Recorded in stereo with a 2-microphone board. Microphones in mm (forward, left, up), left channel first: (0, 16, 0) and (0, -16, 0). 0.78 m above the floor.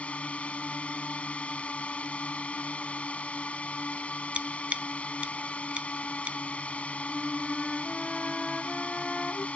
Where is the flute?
25° left (ahead or behind).